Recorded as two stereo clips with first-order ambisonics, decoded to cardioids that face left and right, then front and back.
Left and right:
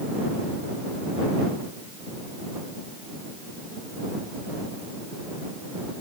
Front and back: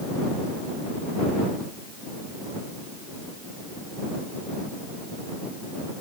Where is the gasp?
No gasp in this recording.